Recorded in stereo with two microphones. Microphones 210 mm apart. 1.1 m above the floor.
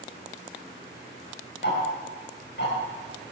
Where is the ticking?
60° left (ahead or behind), 4 m.